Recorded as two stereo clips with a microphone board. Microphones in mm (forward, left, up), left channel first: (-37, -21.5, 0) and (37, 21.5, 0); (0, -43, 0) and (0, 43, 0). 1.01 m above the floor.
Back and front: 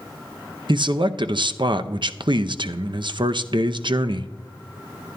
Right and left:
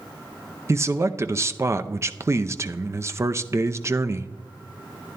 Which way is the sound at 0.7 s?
35° left.